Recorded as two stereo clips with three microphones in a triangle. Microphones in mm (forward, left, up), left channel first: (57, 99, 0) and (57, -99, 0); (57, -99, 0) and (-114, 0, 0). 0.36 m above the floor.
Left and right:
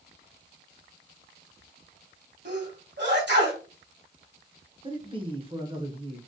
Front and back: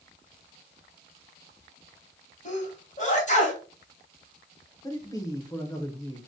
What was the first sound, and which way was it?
A sneeze, 75° right.